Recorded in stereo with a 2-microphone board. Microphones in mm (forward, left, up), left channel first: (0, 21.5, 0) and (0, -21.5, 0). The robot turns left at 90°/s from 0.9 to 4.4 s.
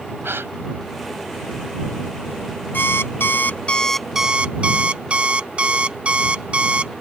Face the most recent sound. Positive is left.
turn(degrees=-30)